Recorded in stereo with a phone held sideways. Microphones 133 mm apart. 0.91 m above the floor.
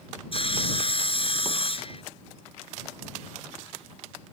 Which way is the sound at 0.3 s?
45° left (ahead or behind).